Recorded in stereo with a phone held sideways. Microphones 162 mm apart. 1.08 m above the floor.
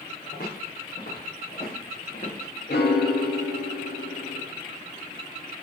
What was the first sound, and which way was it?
Footsteps, 70° left (ahead or behind).